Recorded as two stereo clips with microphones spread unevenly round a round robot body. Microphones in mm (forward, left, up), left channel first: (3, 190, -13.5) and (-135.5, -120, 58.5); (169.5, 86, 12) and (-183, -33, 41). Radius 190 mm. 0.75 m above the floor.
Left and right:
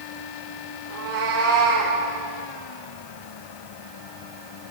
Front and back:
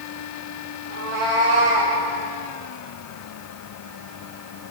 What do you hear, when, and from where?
0.9 s a cat meowing: 155° right, 6 m; by 2.0 s 165° right, 6.5 m